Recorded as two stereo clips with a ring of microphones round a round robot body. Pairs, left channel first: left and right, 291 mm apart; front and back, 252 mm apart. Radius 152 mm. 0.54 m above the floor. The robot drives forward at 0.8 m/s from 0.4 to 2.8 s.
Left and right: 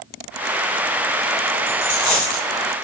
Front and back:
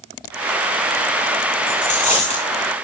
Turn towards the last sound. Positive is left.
turn(degrees=65)